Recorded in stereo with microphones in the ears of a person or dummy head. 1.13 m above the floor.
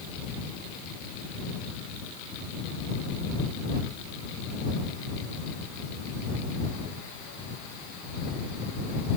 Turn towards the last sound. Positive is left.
No sound to turn to.